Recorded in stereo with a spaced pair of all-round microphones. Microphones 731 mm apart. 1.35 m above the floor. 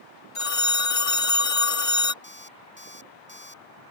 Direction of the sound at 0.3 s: 45° left (ahead or behind).